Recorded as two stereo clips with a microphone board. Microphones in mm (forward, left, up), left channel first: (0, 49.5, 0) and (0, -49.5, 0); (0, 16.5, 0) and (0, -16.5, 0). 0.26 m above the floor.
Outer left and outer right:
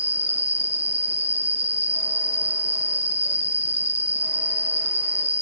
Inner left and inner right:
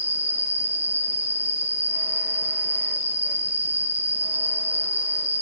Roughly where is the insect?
Right.